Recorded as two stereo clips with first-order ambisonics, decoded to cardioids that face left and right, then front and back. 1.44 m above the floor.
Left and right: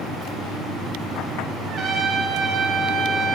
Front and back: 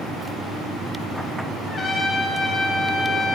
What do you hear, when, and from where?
1.7 s a trumpet: 60° right, 0.6 m